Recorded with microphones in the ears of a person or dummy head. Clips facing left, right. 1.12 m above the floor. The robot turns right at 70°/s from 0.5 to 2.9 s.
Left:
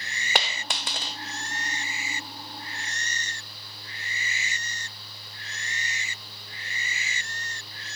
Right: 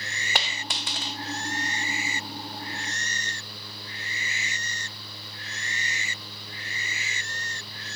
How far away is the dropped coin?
About 0.5 m.